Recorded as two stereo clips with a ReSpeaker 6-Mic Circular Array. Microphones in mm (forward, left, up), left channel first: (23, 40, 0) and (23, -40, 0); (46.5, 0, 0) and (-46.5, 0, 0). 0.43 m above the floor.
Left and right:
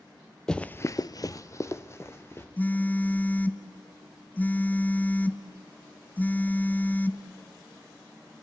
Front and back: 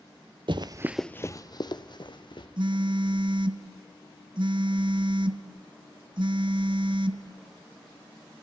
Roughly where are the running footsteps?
Behind.